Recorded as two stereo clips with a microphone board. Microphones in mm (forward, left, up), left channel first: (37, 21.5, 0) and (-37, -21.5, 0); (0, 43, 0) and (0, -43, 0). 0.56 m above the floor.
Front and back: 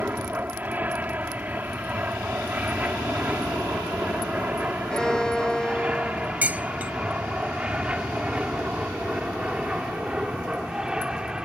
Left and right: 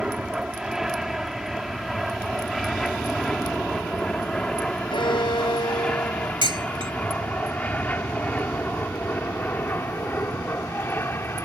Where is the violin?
110° left.